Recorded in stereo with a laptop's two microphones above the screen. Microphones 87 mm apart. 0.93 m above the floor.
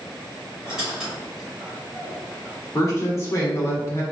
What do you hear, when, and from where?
0.7 s a squeak: 10° right (ahead or behind), 1.2 m
2.8 s a woman speaking: 35° left (ahead or behind), 0.8 m